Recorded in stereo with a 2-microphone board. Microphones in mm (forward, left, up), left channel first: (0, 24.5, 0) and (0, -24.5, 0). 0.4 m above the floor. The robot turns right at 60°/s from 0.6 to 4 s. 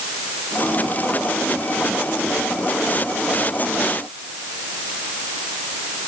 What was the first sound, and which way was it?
Only background noise.